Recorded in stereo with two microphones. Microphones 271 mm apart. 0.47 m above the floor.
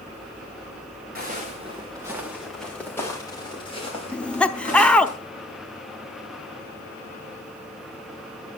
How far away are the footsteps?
About 3 m.